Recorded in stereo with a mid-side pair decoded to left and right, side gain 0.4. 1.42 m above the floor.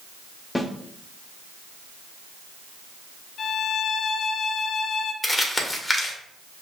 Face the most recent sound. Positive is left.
turn(degrees=25)